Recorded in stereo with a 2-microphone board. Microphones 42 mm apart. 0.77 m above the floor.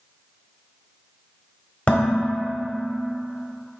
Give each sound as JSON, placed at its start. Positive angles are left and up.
{"t": 1.9, "sound": "dishes clattering", "side_deg": 30, "distance_m": 1.3}